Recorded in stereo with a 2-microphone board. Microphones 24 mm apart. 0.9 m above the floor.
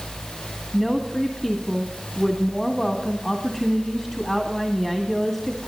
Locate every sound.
0.7 s a woman speaking: centre (ahead or behind), 1.9 m